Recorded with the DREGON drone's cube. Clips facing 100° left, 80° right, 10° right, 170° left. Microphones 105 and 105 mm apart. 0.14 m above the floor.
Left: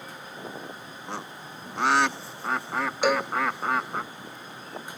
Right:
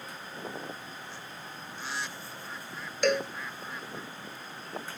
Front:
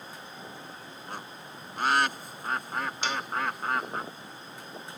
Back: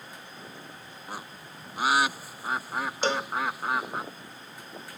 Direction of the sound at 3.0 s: Straight behind.